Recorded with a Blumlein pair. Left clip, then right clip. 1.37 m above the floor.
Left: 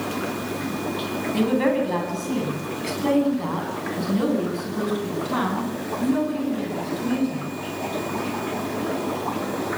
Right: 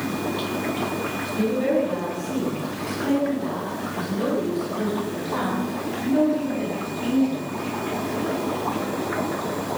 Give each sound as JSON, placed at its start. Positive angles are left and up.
{"t": 1.3, "sound": "a woman speaking", "azimuth_deg": 60, "distance_m": 9.5}